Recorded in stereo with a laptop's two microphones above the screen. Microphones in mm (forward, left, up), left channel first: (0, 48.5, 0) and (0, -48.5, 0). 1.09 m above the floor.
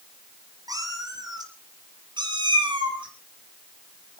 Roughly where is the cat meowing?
Right.